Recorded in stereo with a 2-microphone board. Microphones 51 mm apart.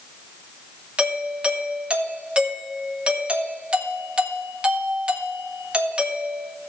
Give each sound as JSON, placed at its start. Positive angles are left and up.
{"t": 1.0, "sound": "a doorbell", "side_deg": -25, "distance_m": 1.5}